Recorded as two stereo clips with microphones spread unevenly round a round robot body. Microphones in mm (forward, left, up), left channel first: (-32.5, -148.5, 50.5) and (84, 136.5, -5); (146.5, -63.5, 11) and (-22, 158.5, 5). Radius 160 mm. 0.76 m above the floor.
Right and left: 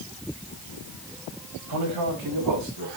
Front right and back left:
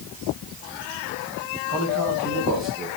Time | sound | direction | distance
1.7 | a man speaking | 85° left | 5 m